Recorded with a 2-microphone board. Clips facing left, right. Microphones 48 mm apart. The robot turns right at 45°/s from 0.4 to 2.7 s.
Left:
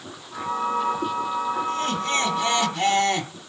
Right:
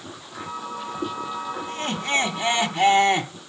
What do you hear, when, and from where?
1.7 s laughter: 30° right (ahead or behind), 1.2 m; by 3.3 s 20° right (ahead or behind), 1.2 m